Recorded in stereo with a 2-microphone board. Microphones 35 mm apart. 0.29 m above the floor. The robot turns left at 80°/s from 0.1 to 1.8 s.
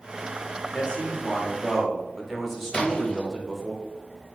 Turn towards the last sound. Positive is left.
turn(degrees=25)  # may be behind; listen again after turning